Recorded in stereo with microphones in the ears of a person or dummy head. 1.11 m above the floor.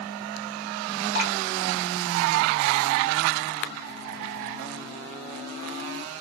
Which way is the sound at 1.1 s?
50° right (ahead or behind).